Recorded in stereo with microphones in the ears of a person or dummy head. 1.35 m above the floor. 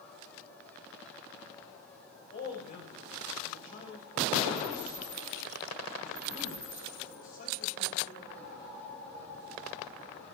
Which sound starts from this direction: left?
A man speaking, at 2.3 s.